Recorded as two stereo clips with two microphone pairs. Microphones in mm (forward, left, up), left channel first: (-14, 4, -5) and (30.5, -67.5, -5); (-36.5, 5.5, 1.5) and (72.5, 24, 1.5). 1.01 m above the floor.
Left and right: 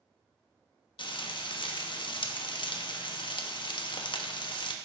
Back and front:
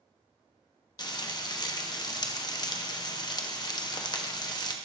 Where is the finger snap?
No finger snap in this recording.